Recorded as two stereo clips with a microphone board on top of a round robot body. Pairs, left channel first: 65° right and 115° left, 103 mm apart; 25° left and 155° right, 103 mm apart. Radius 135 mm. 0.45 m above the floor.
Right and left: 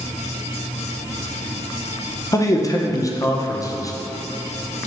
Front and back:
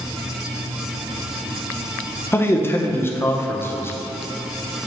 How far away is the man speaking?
About 0.9 m.